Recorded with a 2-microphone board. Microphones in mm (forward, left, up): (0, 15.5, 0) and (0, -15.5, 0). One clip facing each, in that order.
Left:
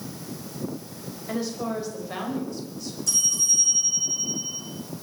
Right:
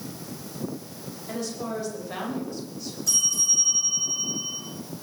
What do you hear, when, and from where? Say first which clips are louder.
1.3 s a woman speaking: left 3 dB; 15° left (ahead or behind), 5 m; by 3.0 s 10° right (ahead or behind), 5 m
3.1 s a bell: even; 5° right (ahead or behind), 7.5 m